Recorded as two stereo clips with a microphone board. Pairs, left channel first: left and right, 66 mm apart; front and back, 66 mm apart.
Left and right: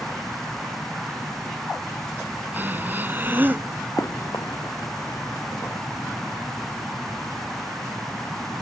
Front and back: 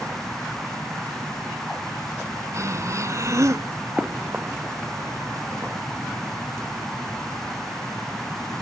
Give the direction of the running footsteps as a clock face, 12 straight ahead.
8 o'clock.